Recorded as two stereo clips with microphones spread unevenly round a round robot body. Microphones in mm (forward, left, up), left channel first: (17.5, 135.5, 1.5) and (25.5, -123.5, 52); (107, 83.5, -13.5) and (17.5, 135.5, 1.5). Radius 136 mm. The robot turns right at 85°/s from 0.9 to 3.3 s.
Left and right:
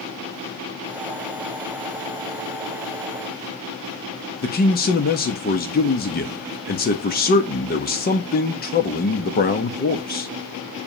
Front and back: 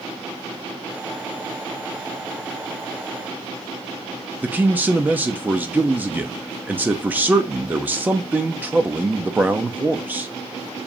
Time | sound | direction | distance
4.4 | a man speaking | 75° left | 1.0 m